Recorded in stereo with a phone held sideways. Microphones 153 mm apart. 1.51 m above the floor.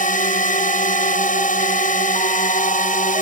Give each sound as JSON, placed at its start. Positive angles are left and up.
{"t": 0.0, "sound": "a drone", "side_deg": 60}